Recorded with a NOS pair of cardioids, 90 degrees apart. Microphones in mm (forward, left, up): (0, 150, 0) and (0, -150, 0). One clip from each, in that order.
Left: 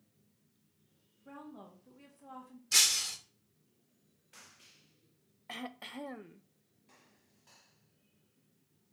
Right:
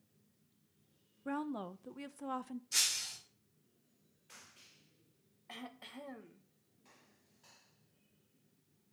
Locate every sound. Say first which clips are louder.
1.2 s a woman speaking: right 10 dB; 70° right, 0.9 m
2.7 s breaking glass: left 7 dB; 60° left, 2.5 m
5.5 s throat clearing: left 6 dB; 30° left, 1.1 m